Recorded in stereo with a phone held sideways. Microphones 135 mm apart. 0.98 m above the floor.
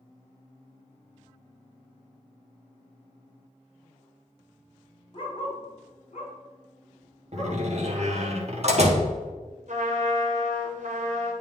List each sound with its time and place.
5.1 s a dog barking: 40° left (ahead or behind), 1.5 m; by 7.6 s 60° left (ahead or behind), 4.5 m
7.3 s a door slam: 55° right (ahead or behind), 1.3 m
9.7 s a trumpet: 65° right (ahead or behind), 1.5 m